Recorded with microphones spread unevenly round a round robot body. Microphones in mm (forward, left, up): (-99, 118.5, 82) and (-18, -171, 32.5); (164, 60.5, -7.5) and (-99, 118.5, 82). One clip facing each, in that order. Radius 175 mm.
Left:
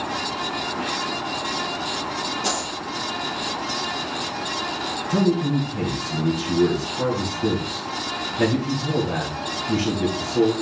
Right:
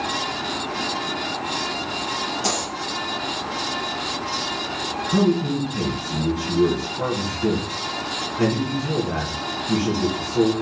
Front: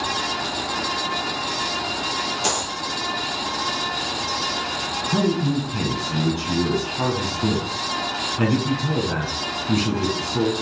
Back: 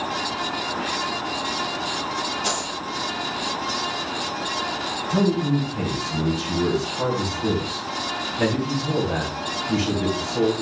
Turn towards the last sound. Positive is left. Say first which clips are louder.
# right 1 dB, even
turn(degrees=20)